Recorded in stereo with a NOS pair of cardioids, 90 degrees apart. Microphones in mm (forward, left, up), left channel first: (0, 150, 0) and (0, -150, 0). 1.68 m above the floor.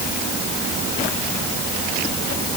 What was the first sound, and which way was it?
Only background noise.